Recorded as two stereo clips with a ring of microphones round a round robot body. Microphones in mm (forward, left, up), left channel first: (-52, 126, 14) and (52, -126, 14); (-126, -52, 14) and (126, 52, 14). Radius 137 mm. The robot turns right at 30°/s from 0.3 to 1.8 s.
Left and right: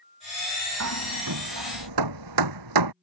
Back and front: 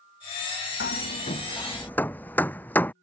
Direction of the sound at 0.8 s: 105° right.